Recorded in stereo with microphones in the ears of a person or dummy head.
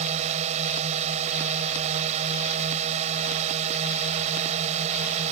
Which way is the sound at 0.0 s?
35° right (ahead or behind).